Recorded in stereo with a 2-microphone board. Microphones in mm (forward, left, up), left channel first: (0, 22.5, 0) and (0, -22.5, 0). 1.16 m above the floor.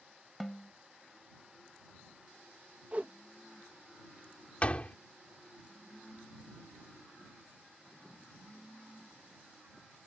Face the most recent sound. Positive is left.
turn(degrees=30)  # may be behind; listen again after turning